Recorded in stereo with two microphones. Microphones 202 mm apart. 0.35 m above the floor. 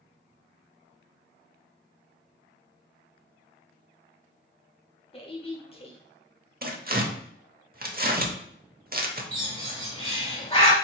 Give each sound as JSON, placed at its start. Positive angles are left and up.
{"t": 5.1, "sound": "a woman speaking", "side_deg": 25, "distance_m": 1.1}
{"t": 6.6, "sound": "tearing paper", "side_deg": -45, "distance_m": 0.7}
{"t": 9.3, "sound": "a bird", "side_deg": 30, "distance_m": 1.4}